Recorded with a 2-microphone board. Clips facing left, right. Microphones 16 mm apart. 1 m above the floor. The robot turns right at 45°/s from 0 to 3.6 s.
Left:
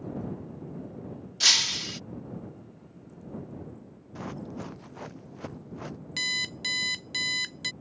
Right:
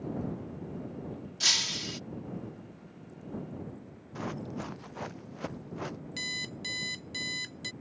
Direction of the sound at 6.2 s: 30° left (ahead or behind).